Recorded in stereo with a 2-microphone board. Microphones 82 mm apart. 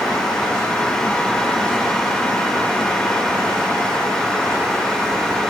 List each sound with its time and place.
Only background noise.